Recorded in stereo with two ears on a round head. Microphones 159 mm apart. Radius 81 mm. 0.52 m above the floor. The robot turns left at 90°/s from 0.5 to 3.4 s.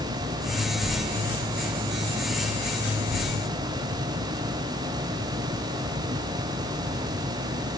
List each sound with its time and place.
Only background noise.